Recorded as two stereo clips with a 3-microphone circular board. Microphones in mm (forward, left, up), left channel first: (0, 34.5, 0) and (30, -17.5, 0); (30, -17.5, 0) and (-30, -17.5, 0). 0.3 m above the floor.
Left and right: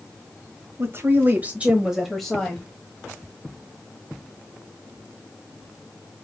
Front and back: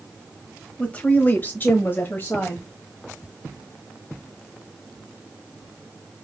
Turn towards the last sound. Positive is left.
turn(degrees=45)